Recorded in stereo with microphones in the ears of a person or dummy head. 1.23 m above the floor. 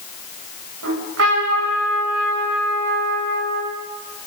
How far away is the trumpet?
About 8 m.